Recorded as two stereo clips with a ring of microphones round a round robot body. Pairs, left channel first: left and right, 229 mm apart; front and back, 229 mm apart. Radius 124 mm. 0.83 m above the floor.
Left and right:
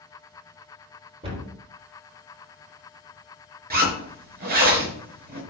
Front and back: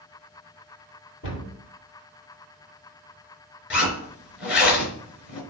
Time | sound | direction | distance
1.2 | a cupboard door | 25° right | 3.5 m
3.7 | a zipper | 40° right | 4.5 m